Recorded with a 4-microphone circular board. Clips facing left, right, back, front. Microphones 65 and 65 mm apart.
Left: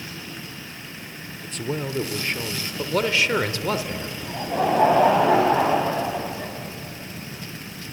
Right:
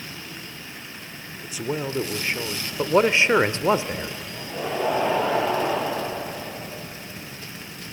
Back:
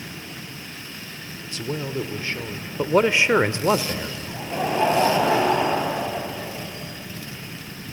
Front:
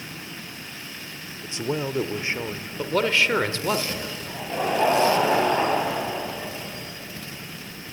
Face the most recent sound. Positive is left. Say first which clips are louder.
# left 7 dB, even
turn(degrees=95)